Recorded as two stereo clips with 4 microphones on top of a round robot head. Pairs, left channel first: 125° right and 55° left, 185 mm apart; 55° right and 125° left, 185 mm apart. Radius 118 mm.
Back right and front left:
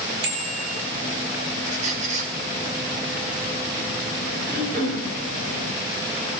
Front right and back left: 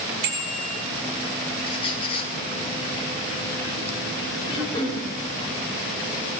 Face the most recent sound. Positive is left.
turn(degrees=15)